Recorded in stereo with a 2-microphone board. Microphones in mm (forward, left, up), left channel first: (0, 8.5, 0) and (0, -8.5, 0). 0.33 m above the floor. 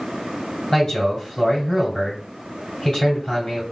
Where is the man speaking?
30° left (ahead or behind), 1.7 m.